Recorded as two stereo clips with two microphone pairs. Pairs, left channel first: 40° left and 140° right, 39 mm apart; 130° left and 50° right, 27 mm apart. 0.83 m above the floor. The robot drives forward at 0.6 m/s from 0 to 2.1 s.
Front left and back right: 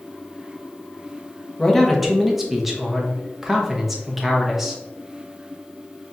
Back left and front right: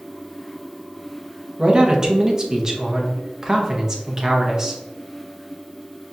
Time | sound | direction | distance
1.6 | a man speaking | 30° right | 0.8 m